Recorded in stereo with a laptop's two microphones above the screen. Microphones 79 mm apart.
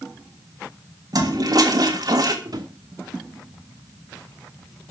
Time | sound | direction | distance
1.1 | a toilet flushing | 55° right (ahead or behind) | 1.6 m
2.5 | a drawer | 60° right (ahead or behind) | 1.8 m